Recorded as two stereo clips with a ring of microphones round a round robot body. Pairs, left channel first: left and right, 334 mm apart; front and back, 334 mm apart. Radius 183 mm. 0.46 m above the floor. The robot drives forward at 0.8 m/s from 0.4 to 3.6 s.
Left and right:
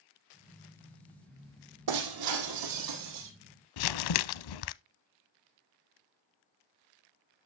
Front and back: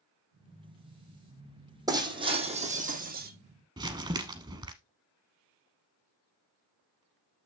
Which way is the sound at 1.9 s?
100° right.